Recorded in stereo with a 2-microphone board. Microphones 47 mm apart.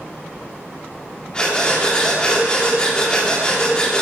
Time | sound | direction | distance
1.3 | breathing | 20° left (ahead or behind) | 3 m